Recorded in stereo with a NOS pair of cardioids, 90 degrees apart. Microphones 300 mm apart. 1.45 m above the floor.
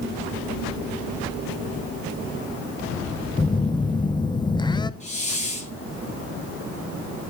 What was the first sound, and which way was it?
A phone buzzing, 15° left.